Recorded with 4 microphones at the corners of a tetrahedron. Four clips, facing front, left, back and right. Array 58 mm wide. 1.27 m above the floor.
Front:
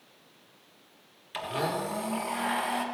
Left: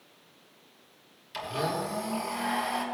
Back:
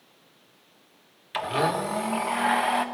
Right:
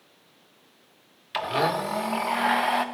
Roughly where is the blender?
Behind right.